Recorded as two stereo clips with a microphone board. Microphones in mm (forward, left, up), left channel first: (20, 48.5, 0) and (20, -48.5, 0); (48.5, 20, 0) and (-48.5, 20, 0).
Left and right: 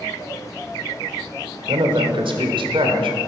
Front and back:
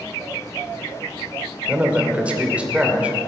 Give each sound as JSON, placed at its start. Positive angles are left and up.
{"t": 1.7, "sound": "a man speaking", "azimuth_deg": -105, "distance_m": 2.0}